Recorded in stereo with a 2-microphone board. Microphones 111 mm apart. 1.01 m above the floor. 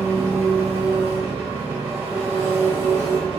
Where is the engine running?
20° right (ahead or behind), 1.6 m.